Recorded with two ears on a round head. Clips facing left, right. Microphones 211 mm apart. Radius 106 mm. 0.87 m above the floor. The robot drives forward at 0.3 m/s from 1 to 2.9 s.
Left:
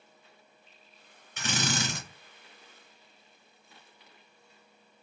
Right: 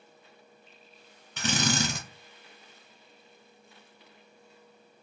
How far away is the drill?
About 1.2 m.